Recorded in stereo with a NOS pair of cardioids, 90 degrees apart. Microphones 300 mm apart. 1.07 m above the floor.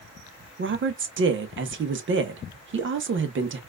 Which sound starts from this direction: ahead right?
A woman speaking, at 0.6 s.